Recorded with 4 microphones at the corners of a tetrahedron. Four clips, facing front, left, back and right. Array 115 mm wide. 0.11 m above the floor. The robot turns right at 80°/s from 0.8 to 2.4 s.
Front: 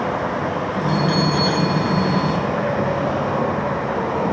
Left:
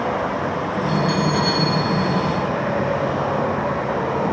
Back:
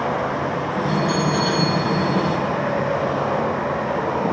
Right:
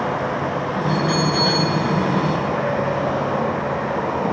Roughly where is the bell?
Ahead left.